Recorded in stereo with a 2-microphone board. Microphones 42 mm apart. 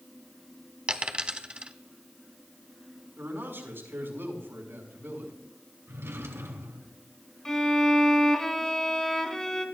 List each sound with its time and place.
0.9 s a dropped coin: 25° right (ahead or behind), 0.9 m
3.2 s a man speaking: 60° right (ahead or behind), 5 m
5.9 s a drawer: 85° right, 2.5 m
7.5 s a violin: 15° left (ahead or behind), 1.8 m